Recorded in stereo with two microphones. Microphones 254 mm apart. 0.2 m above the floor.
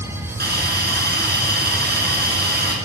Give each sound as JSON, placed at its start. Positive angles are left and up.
{"t": 0.4, "sound": "a hiss", "side_deg": -40, "distance_m": 2.0}